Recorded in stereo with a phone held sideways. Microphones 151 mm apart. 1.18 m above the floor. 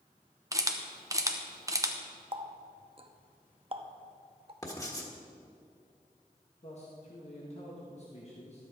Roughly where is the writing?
Left.